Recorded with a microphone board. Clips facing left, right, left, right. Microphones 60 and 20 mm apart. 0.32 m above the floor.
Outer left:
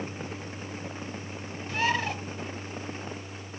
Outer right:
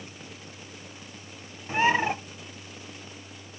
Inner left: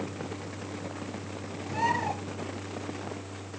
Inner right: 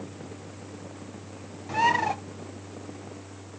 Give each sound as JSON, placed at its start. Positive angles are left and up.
{"t": 1.7, "sound": "a bird", "side_deg": -20, "distance_m": 0.6}